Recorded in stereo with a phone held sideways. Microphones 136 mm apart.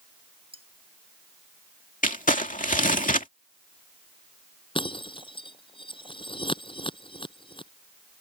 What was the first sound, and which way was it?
Cutlery clinking, 45° right (ahead or behind).